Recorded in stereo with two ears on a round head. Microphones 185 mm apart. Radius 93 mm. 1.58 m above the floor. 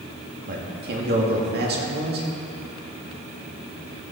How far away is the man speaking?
About 2.5 m.